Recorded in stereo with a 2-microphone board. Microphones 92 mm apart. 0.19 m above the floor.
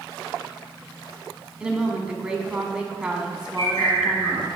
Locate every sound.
1.6 s a woman speaking: 10° right (ahead or behind), 1.4 m
3.6 s a bird: 50° left (ahead or behind), 3 m